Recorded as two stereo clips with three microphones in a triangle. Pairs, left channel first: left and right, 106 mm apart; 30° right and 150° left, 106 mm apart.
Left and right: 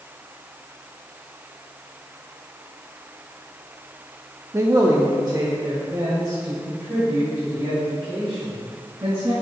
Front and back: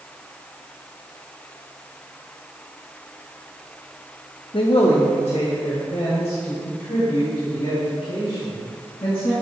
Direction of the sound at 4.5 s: 30° right.